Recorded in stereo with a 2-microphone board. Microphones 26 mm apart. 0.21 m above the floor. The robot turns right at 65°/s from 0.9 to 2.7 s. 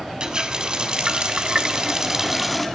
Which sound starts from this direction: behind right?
A running tap, at 0.2 s.